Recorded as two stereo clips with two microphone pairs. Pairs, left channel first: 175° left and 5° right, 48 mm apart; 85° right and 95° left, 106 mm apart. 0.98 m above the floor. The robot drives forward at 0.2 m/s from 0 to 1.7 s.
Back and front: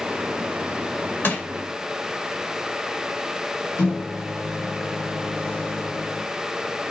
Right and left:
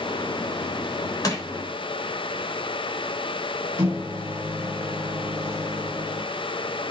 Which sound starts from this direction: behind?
A microwave, at 3.8 s.